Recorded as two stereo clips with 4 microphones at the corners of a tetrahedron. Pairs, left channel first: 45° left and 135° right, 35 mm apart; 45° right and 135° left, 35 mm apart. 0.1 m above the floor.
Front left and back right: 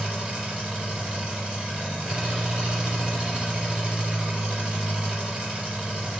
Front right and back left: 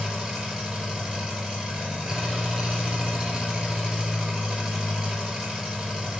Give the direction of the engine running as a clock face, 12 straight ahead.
6 o'clock.